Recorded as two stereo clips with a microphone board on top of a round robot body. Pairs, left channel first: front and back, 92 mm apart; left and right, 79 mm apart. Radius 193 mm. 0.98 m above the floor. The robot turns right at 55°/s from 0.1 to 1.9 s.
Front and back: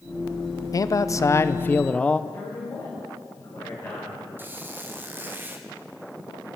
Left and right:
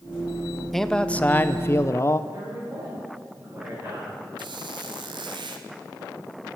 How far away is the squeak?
About 0.9 m.